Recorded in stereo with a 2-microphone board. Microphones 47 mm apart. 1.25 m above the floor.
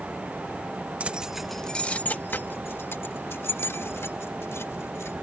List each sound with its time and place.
1.0 s keys jangling: 30° right (ahead or behind); by 5.1 s 75° left (ahead or behind)